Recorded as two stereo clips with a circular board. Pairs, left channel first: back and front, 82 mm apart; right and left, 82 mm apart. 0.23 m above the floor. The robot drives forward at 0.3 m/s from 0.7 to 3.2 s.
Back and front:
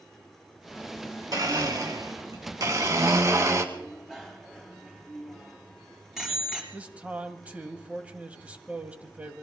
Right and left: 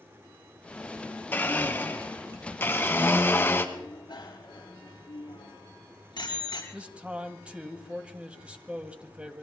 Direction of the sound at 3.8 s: 80° right.